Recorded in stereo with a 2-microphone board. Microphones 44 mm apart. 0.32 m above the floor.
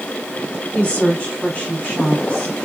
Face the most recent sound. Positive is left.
turn(degrees=20)  # may be behind; listen again after turning